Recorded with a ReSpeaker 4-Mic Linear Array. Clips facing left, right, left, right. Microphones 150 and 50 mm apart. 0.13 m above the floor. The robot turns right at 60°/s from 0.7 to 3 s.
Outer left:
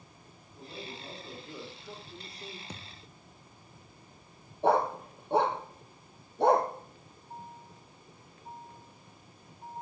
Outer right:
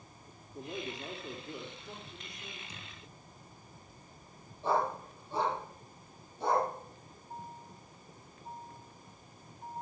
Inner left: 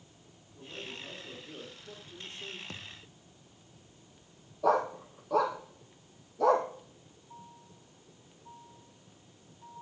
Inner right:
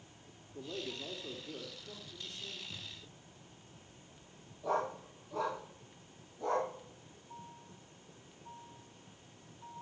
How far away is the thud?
About 1.7 m.